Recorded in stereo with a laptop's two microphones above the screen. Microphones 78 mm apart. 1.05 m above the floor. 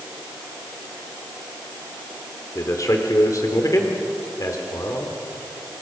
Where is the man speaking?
45° left (ahead or behind), 3 m.